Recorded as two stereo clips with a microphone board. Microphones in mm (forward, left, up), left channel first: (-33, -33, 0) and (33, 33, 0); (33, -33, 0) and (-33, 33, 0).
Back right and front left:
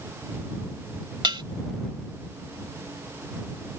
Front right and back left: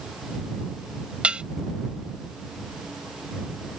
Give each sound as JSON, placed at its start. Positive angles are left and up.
{"t": 1.2, "sound": "dishes clattering", "azimuth_deg": 60}